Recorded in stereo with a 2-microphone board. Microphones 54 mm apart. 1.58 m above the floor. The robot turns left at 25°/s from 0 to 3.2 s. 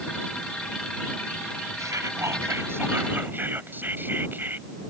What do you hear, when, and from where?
1.8 s whispering: 105° right; by 4.7 s 140° right